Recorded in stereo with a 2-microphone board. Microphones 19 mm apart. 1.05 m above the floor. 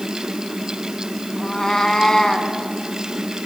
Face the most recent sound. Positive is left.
turn(degrees=25)  # may be behind; listen again after turning